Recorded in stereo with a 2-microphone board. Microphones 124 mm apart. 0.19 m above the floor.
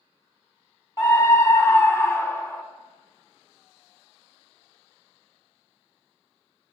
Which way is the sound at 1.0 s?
25° left (ahead or behind).